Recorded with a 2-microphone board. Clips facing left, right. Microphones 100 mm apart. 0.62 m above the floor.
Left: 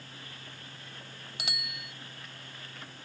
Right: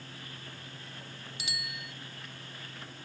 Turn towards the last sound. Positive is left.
turn(degrees=70)  # may be behind; listen again after turning